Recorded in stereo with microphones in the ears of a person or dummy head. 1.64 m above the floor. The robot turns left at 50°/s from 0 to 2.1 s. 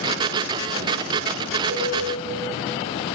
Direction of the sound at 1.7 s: 55° right (ahead or behind).